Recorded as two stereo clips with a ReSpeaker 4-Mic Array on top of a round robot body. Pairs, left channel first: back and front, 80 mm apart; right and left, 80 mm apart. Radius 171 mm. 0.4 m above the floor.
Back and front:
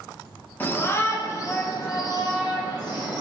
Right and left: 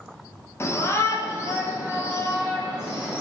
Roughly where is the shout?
Behind right.